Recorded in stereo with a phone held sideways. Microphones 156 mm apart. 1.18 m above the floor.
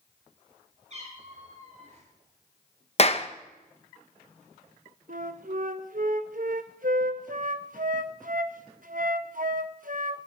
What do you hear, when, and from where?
0.9 s a cat meowing: 45° right (ahead or behind), 9 m; by 2.0 s 50° right (ahead or behind), 9.5 m
3.0 s a clap: 40° left (ahead or behind), 1.0 m
5.1 s a flute: 60° right (ahead or behind), 0.9 m